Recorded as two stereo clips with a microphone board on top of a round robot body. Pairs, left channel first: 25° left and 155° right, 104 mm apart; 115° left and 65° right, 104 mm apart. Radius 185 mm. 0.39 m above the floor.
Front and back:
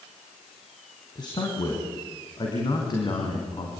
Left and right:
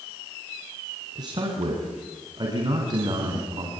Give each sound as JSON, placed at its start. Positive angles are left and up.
{"t": 1.1, "sound": "a man speaking", "azimuth_deg": -20, "distance_m": 4.5}